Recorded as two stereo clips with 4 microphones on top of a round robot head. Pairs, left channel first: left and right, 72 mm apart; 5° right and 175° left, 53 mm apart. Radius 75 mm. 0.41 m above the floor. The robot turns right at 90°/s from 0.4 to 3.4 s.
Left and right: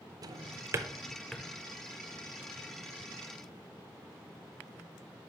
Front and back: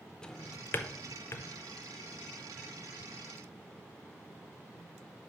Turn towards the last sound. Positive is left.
turn(degrees=-170)